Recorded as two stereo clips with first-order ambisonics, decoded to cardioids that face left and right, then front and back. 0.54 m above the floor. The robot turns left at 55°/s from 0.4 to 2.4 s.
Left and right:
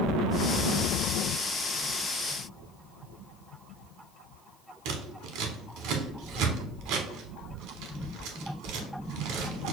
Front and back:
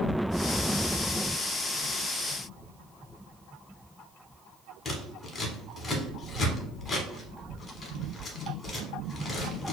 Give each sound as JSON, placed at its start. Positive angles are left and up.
{"t": 4.8, "sound": "scissors", "azimuth_deg": -75, "distance_m": 0.8}